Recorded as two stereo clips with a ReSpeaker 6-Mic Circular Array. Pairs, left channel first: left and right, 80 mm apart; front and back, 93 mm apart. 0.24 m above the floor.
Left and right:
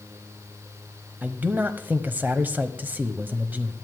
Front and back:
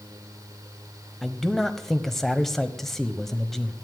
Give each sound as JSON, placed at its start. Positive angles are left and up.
{"t": 1.2, "sound": "a man speaking", "azimuth_deg": -80, "distance_m": 1.0}